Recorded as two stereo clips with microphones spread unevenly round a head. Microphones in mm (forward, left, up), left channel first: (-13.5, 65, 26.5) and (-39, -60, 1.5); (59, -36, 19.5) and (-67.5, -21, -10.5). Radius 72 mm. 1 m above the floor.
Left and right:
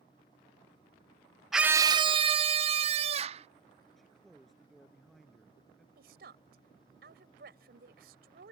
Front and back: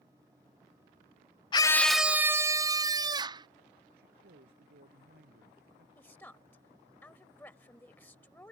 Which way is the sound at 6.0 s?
80° right.